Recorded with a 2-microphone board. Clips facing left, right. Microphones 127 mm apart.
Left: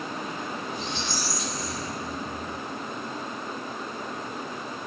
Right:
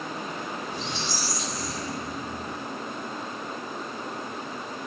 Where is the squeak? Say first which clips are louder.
Even; 80° right, 1.0 m.